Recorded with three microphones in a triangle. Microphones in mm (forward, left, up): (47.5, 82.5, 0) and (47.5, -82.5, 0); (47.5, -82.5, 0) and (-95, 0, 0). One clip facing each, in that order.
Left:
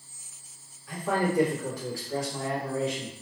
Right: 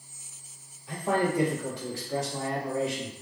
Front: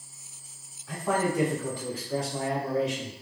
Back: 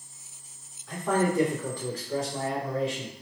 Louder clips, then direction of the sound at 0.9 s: Right 1 dB, back 2 dB; 105° right.